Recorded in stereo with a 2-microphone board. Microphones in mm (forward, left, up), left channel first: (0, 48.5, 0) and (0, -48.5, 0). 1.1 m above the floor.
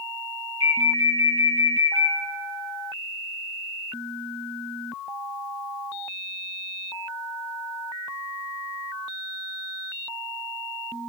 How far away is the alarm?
About 4 m.